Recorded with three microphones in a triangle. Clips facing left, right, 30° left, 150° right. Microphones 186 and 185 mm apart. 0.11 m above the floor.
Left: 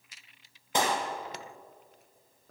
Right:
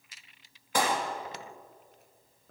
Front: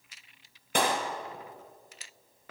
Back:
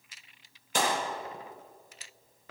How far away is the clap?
About 3 m.